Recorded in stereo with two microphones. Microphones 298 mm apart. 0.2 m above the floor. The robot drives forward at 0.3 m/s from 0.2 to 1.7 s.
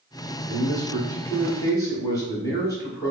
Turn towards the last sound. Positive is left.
turn(degrees=10)  # may be behind; listen again after turning